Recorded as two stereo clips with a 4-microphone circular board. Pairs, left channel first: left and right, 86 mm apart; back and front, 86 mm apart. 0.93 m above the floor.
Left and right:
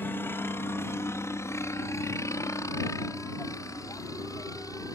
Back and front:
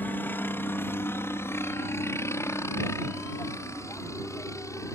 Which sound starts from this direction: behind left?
A helicopter, at 0.0 s.